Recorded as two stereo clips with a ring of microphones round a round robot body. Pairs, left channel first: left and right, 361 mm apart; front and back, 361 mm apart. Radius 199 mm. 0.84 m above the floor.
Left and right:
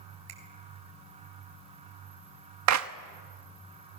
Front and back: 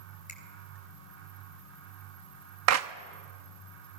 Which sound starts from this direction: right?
A finger snap, at 0.3 s.